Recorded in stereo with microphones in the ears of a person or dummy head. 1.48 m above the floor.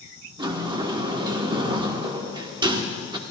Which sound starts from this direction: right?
A sliding door, at 0.4 s.